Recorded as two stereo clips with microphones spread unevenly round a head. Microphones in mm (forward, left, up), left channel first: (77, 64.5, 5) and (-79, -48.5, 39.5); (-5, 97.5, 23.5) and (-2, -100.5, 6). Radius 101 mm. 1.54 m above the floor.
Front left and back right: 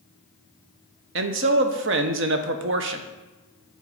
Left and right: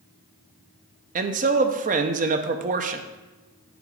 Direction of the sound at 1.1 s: 140° right.